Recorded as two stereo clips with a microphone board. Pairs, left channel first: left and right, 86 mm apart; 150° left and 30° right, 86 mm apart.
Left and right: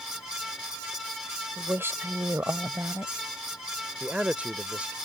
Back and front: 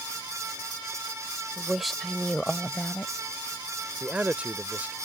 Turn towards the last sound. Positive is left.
turn(degrees=-55)